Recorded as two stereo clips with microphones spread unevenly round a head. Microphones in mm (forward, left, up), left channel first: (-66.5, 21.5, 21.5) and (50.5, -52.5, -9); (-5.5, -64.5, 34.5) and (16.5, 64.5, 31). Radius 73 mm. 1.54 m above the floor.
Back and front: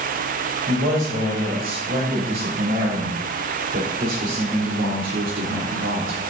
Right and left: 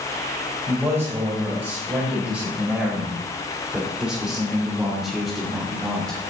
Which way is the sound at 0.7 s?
10° left.